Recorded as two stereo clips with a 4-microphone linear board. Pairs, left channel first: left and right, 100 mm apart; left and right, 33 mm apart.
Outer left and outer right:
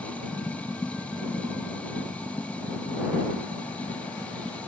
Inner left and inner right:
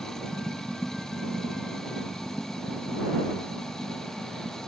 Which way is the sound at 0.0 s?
15° left (ahead or behind).